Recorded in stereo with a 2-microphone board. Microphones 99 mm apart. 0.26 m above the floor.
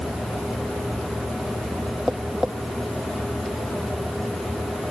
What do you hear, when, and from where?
2.1 s tapping: 5° right (ahead or behind)